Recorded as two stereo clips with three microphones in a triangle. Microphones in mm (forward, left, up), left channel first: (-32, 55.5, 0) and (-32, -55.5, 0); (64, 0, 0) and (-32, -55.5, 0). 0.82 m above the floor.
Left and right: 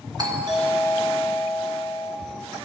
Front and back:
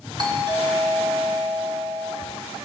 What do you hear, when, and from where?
0.2 s a doorbell: 125° right, 2 m